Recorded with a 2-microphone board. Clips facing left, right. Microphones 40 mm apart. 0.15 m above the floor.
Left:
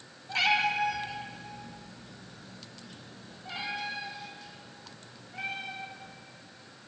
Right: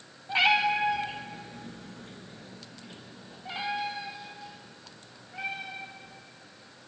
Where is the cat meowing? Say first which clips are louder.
Right 3 dB; 20° right (ahead or behind), 2.5 m; by 6.1 s 5° right (ahead or behind), 6.5 m.